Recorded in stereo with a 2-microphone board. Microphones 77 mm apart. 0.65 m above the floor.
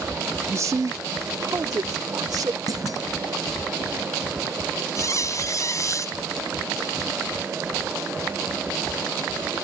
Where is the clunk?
50° right (ahead or behind).